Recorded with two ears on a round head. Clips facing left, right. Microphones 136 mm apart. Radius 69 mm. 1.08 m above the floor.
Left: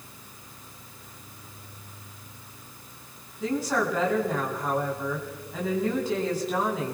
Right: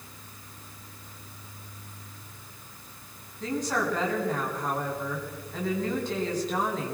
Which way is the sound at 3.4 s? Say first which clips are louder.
Left 2 dB; 5° left (ahead or behind).